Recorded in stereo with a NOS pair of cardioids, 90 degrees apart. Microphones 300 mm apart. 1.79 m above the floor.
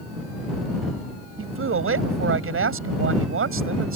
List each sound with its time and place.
1.4 s a man speaking: 45° right